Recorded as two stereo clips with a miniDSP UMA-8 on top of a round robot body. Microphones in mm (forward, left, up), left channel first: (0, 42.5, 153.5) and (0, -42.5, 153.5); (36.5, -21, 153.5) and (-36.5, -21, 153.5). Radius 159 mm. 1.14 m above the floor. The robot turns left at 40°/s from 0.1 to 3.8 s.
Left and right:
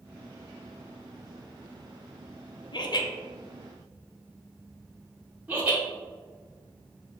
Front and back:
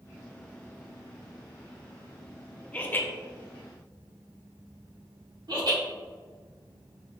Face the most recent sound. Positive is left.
turn(degrees=-165)